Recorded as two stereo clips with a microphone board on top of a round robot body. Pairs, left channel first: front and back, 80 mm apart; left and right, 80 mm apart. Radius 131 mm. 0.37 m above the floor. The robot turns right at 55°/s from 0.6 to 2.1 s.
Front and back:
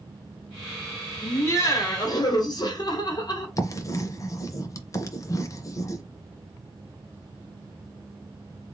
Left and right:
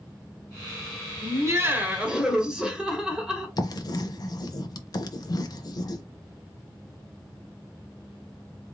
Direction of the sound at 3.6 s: 50° left.